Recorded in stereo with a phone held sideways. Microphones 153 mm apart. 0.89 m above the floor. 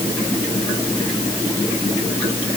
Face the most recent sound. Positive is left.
No sound to turn to.